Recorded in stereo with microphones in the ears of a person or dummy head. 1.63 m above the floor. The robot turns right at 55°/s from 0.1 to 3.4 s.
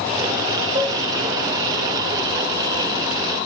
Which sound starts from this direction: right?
Dishes clattering, at 0.8 s.